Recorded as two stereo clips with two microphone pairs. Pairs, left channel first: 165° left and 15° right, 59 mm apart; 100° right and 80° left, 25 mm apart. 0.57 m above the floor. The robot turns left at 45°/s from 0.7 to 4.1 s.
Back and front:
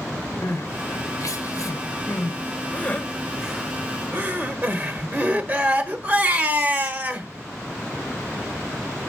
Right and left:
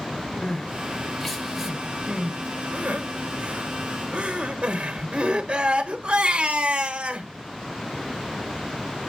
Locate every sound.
0.4 s crying: 170° right, 1.0 m; by 7.3 s 40° left, 1.0 m